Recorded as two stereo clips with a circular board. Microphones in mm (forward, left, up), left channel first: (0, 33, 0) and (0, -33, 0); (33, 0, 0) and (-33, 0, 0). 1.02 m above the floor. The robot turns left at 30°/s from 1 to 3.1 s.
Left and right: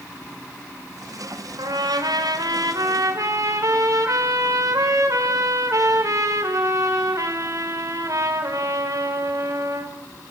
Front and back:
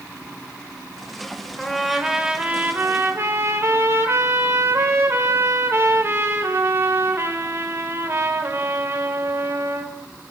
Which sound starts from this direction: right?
A trumpet, at 1.6 s.